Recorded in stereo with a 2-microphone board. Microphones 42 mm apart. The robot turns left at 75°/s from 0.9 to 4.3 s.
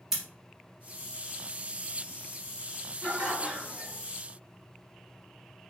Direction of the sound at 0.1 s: 10° right (ahead or behind).